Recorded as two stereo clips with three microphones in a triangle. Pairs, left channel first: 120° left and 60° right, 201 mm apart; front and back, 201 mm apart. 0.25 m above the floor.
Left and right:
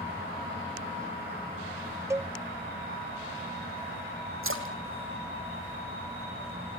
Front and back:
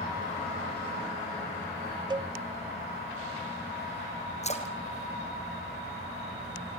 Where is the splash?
55° right, 2.5 m.